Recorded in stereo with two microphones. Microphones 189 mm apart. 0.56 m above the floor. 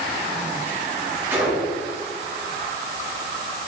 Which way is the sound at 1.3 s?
10° right (ahead or behind).